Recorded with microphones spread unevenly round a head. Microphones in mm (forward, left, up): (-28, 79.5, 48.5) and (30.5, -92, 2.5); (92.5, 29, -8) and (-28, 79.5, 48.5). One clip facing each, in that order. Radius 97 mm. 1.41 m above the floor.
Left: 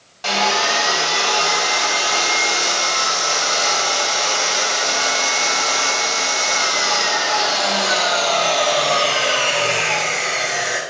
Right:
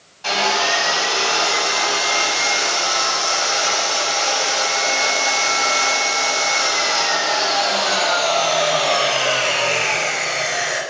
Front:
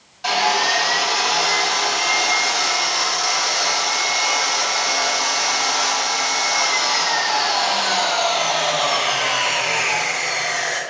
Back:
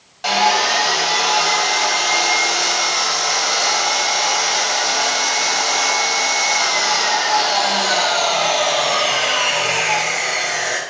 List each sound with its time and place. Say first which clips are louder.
0.2 s sawing: even, back 3 dB; 135° left, 7.5 m